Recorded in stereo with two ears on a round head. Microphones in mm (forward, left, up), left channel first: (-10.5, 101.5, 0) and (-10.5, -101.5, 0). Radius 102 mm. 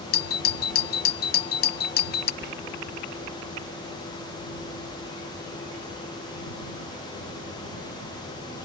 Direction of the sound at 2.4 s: 45° right (ahead or behind).